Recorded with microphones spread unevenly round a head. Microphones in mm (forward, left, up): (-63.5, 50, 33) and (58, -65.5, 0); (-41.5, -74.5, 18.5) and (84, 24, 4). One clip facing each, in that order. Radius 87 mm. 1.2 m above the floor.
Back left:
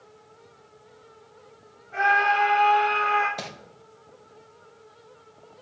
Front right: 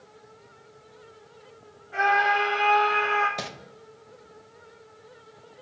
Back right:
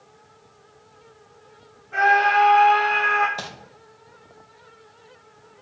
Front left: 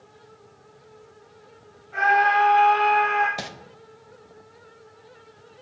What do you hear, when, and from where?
1.9 s a scream: 115° right, 3 m; by 3.3 s 125° right, 2.5 m
3.4 s crumpling: 5° left, 0.5 m